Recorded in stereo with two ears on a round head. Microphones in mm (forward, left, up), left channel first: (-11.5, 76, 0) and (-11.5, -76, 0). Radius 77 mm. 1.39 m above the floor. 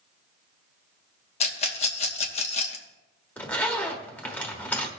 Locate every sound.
1.4 s a rattle: 40° left (ahead or behind), 1.0 m
3.4 s a zipper: 10° left (ahead or behind), 1.3 m